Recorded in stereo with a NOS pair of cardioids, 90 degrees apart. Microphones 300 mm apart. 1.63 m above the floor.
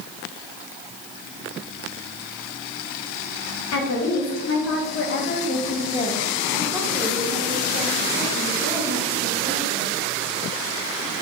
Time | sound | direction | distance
3.7 | a woman speaking | 60° left | 2.0 m